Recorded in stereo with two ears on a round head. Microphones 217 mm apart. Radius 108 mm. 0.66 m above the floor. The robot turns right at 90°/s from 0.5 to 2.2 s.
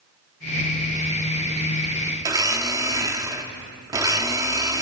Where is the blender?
15° right (ahead or behind), 1.2 m.